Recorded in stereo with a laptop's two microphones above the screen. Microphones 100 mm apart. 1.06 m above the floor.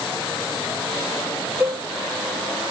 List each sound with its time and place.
1.6 s a cowbell: 15° right (ahead or behind), 0.7 m